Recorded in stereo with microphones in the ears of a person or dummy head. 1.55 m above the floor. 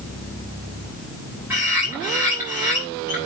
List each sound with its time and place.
1.5 s a bird: 15° right (ahead or behind), 4 m